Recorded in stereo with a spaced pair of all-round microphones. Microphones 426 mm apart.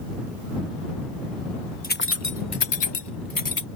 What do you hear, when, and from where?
1.8 s keys jangling: 20° left (ahead or behind); by 3.7 s 40° left (ahead or behind)